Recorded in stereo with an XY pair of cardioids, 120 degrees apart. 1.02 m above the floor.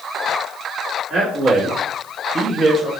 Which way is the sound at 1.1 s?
65° right.